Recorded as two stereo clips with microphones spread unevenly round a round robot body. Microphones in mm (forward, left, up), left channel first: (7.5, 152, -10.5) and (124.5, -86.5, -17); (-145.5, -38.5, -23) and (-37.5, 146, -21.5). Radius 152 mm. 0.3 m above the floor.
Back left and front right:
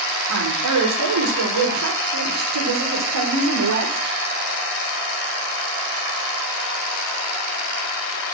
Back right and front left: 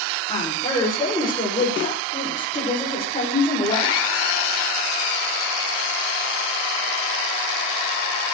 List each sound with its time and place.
0.3 s a woman speaking: 40° right, 7 m; by 4.1 s 50° right, 8.5 m